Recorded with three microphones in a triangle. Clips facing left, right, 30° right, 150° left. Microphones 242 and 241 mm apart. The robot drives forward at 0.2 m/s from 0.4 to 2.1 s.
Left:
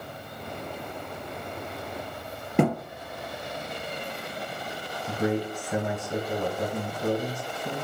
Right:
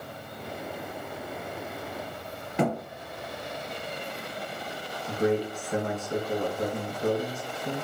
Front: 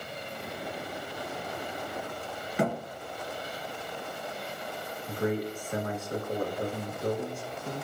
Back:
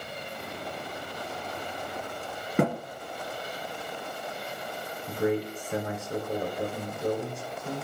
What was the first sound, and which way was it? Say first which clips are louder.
A thud: left 4 dB, back 4 dB; 125° left.